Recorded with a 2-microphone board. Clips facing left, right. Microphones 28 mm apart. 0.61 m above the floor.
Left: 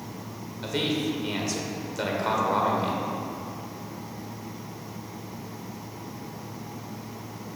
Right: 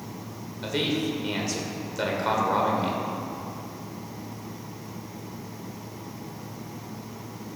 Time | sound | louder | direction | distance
0.6 | a man speaking | even | 5° right (ahead or behind) | 1.9 m